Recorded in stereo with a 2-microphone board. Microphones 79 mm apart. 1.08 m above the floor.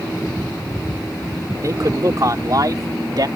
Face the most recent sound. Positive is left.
turn(degrees=-55)  # may be behind; listen again after turning